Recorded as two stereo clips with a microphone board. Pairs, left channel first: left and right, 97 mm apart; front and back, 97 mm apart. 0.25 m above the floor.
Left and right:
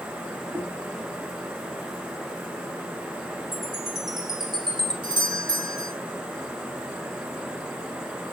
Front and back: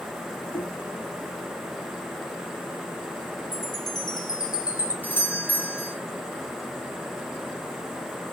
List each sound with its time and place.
0.5 s knocking: 35° right, 3 m
3.5 s a chime: 45° right, 3 m
5.0 s a doorbell: 65° right, 3.5 m